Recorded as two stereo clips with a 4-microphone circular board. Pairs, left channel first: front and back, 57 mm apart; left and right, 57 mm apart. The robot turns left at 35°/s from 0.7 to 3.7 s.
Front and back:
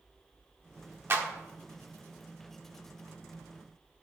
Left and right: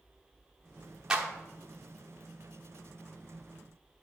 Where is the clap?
160° right, 1.0 m; by 1.3 s 165° right, 1.0 m.